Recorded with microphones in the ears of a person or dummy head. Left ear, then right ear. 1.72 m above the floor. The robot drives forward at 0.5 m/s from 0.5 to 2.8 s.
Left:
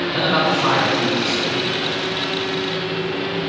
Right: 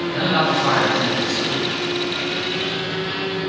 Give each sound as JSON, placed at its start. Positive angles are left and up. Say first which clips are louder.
{"t": 0.1, "sound": "a man speaking", "louder": "left 1 dB", "side_deg": 50, "distance_m": 2.5}